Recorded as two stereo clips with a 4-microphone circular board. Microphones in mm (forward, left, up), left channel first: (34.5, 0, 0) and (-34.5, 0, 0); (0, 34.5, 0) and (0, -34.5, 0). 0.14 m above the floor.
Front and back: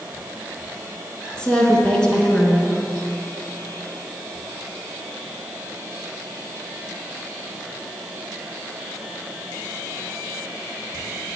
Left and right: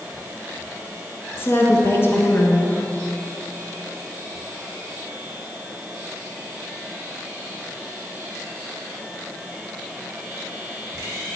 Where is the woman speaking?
70° left, 2.0 m.